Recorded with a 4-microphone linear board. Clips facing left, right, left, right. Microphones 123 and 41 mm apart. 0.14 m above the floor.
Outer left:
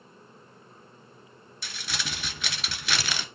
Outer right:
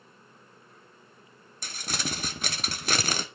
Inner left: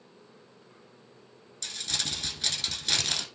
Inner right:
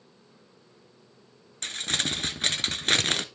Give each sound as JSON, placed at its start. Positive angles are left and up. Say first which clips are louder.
{"t": 1.6, "sound": "crumpling", "louder": "outer right 3 dB, inner right 5 dB", "side_deg": -45, "distance_m": 0.7}